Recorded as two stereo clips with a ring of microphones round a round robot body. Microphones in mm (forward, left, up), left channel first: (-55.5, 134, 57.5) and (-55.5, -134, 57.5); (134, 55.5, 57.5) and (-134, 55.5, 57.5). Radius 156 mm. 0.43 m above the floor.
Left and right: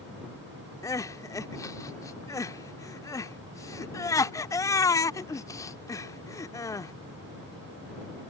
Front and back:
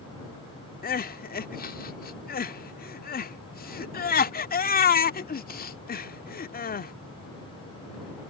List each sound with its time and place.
0.8 s crying: 20° left